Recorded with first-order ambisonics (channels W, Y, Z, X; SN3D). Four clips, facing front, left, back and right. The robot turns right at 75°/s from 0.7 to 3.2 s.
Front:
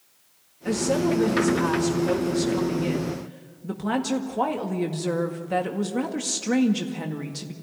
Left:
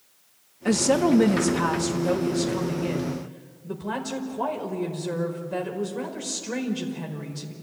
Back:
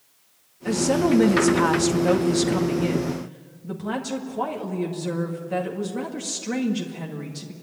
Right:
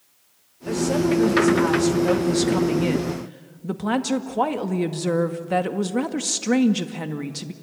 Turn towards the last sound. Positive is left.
turn(degrees=-75)